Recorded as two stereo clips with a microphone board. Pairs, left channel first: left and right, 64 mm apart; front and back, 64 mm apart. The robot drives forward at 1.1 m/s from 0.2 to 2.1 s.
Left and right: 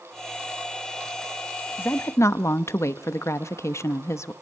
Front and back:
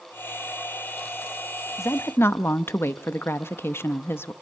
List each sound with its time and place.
1.8 s a woman speaking: 35° left, 1.1 m; by 4.3 s 50° left, 0.8 m